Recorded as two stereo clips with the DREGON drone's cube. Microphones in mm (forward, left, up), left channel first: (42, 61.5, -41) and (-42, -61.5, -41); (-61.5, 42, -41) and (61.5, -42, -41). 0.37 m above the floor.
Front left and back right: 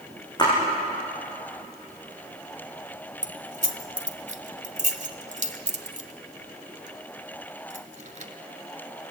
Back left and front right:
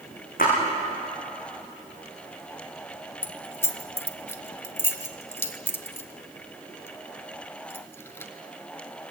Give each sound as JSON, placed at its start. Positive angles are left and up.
{"t": 0.4, "sound": "a splash", "azimuth_deg": 120, "distance_m": 9.0}
{"t": 3.2, "sound": "keys jangling", "azimuth_deg": -145, "distance_m": 1.1}